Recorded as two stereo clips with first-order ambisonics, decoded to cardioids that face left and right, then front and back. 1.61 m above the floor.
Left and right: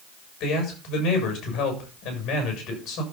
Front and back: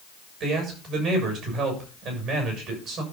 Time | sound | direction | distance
0.4 | a man speaking | 135° left | 7 m